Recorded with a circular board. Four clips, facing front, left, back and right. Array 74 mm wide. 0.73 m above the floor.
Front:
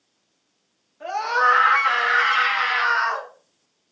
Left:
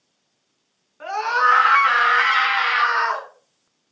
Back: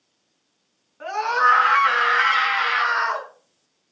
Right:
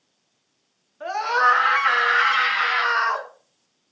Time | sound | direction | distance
1.0 | a scream | 125° left | 8.5 m